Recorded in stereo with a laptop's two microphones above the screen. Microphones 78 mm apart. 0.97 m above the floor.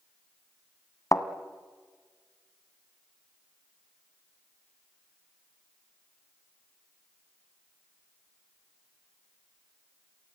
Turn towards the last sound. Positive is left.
turn(degrees=40)  # may be behind; listen again after turning